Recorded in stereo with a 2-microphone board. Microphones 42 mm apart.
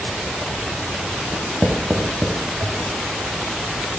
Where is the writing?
45° right (ahead or behind), 1.1 m.